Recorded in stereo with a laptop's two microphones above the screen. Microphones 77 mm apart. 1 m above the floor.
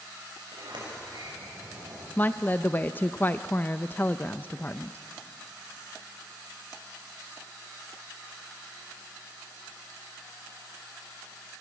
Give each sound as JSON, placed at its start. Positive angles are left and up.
{"t": 0.5, "sound": "a sliding door", "side_deg": -85, "distance_m": 6.5}
{"t": 2.2, "sound": "a woman speaking", "side_deg": 25, "distance_m": 0.6}